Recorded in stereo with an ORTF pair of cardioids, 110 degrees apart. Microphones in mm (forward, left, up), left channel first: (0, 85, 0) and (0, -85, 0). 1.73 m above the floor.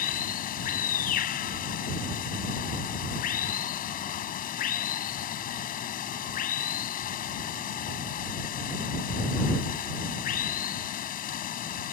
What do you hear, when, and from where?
0.0 s running water: 60° left